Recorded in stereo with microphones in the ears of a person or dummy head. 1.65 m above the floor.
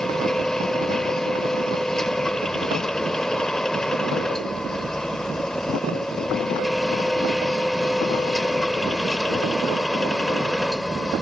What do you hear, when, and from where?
0.0 s a machine running: 5° left (ahead or behind)